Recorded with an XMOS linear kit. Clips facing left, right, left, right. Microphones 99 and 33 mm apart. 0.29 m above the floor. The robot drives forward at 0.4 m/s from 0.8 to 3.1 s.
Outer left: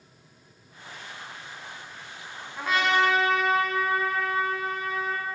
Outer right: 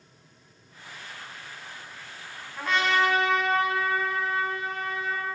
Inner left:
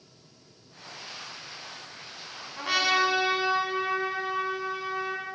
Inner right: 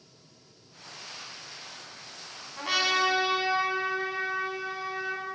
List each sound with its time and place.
2.6 s a trumpet: 5° left (ahead or behind), 0.8 m